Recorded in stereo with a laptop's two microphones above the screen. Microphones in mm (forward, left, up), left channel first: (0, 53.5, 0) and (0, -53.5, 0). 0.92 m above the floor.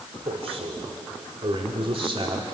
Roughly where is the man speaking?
Right.